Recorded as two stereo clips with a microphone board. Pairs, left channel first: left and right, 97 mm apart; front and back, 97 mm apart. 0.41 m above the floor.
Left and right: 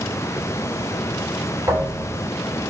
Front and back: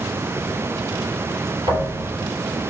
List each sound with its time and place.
1.7 s a thud: 155° right, 2.5 m